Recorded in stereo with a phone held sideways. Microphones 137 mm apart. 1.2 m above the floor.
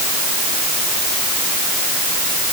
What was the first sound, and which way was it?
Only background noise.